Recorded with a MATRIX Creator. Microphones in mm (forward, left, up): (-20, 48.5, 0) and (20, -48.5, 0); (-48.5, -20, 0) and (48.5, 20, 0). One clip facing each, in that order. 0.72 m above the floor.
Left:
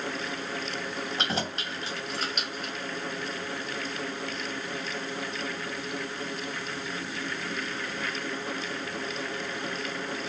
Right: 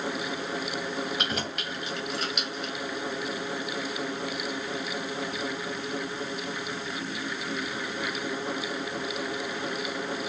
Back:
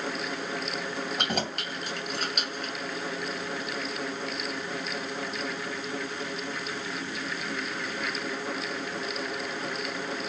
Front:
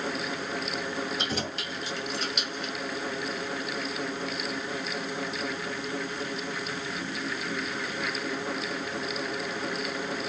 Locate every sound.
1.2 s keys jangling: 175° left, 2.5 m; by 2.7 s 160° left, 2 m